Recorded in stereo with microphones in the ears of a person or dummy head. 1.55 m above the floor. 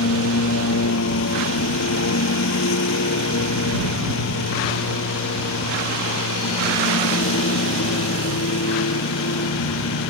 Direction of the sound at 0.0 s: 75° left (ahead or behind).